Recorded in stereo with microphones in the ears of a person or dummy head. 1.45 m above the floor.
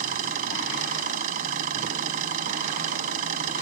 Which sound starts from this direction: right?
An engine running, at 0.0 s.